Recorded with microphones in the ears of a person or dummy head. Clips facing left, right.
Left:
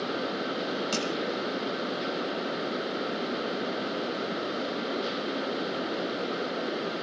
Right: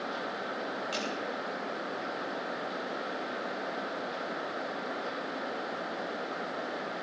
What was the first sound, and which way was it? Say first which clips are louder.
Crushing: left 5 dB; 50° left (ahead or behind).